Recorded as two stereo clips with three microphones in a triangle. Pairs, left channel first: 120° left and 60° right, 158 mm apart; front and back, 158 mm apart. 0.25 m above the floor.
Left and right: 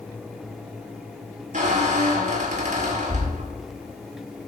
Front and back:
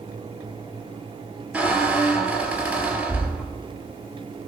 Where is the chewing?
I don't hear chewing.